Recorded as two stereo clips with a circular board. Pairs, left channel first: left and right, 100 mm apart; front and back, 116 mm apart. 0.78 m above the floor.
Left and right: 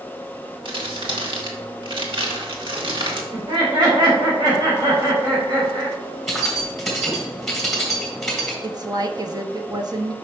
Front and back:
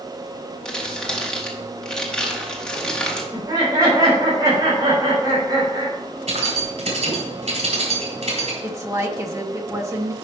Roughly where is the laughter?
Behind right.